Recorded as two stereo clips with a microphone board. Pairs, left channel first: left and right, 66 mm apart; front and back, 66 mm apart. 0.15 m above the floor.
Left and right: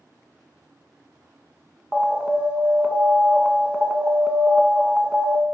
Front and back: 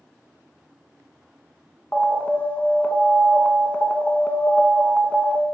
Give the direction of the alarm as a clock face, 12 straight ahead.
1 o'clock.